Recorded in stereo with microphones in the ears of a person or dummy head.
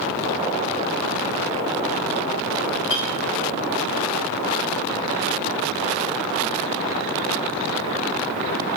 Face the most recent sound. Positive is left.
turn(degrees=70)  # may be behind; listen again after turning